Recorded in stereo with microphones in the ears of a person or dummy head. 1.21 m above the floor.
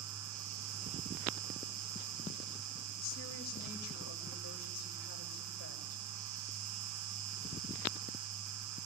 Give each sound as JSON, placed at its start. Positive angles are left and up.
{"t": 0.0, "sound": "an insect", "side_deg": -75, "distance_m": 3.0}
{"t": 3.0, "sound": "a woman speaking", "side_deg": 45, "distance_m": 6.5}